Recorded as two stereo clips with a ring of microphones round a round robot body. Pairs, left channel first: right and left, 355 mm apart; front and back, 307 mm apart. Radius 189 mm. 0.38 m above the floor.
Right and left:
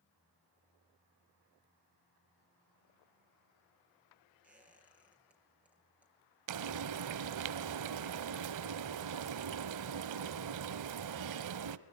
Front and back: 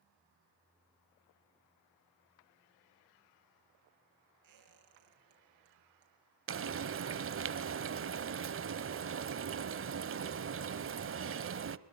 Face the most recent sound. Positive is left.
turn(degrees=130)